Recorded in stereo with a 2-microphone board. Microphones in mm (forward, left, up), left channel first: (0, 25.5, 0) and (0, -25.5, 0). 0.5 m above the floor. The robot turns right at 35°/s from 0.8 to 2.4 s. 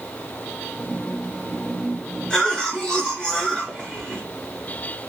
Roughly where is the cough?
Centre.